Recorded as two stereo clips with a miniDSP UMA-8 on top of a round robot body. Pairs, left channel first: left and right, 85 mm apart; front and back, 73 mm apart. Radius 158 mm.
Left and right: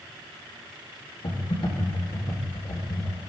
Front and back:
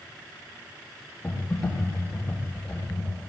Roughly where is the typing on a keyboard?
Left.